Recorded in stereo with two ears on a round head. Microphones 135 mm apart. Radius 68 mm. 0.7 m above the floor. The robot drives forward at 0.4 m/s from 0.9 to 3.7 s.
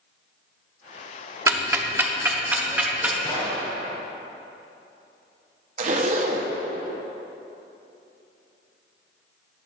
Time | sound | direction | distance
1.5 | ticking | 20° right (ahead or behind) | 0.7 m
3.2 | a gunshot | 25° left (ahead or behind) | 2 m
5.8 | a zipper | 45° right (ahead or behind) | 0.7 m